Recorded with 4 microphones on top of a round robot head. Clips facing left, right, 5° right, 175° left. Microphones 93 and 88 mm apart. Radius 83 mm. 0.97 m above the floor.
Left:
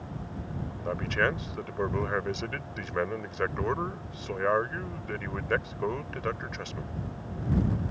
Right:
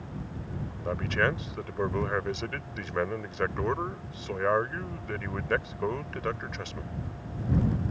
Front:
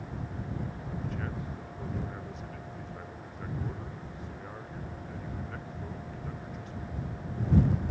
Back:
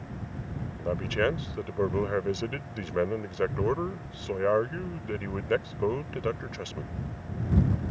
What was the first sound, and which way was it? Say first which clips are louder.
A man speaking: even, back 10 dB; straight behind.